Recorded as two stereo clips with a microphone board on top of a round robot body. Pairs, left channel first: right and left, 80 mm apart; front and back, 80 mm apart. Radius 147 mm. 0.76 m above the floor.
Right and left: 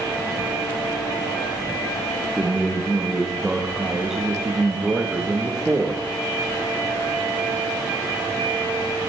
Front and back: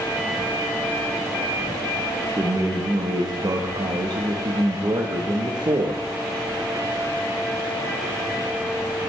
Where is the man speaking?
170° left, 1.3 m.